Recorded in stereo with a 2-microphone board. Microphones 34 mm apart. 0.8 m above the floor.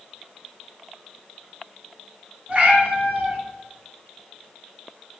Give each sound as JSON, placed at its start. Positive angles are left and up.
{"t": 2.5, "sound": "a cat meowing", "side_deg": -45, "distance_m": 0.9}